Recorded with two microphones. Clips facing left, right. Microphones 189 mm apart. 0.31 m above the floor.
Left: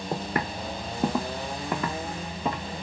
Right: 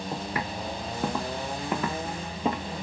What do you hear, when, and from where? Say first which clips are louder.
0.1 s footsteps: left 5 dB; 65° left (ahead or behind), 0.8 m; by 2.7 s 20° right (ahead or behind), 1.2 m